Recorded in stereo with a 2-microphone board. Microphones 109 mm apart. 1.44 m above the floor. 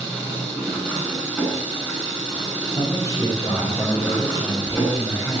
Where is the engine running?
10° left (ahead or behind), 8 m.